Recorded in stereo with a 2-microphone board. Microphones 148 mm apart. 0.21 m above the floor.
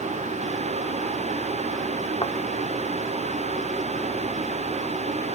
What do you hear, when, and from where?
2.2 s a thud: 35° left (ahead or behind)